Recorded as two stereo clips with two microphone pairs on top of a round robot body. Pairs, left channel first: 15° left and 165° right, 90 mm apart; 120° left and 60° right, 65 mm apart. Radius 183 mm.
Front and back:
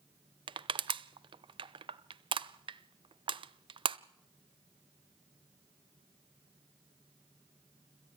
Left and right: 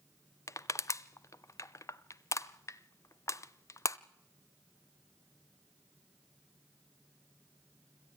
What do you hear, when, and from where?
0.5 s crushing: 160° left, 0.8 m